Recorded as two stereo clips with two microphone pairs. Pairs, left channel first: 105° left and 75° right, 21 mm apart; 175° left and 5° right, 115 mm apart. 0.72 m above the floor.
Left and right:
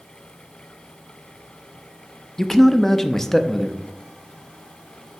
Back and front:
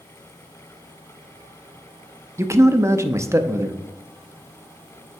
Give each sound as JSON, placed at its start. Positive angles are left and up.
{"t": 2.4, "sound": "a man speaking", "azimuth_deg": 35, "distance_m": 0.7}